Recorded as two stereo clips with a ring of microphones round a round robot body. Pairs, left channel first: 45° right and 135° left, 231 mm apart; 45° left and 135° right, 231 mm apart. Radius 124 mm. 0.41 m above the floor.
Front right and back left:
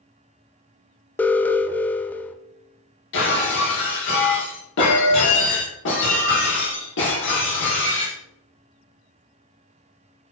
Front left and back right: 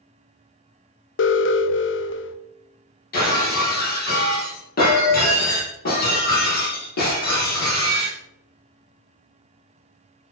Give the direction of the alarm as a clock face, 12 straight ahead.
11 o'clock.